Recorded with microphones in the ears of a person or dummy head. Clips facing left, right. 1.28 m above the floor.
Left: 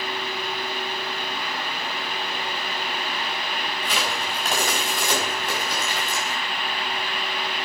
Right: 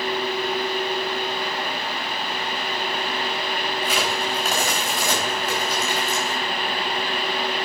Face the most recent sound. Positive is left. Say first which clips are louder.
# right 3 dB
turn(degrees=-5)  # may be behind; listen again after turning